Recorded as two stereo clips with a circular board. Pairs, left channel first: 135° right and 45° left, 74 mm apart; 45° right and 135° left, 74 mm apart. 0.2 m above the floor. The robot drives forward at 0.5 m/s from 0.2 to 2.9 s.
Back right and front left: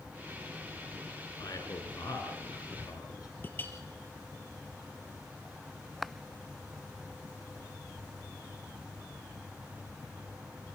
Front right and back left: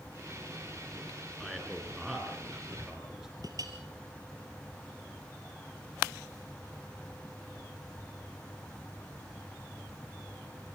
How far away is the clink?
About 3 m.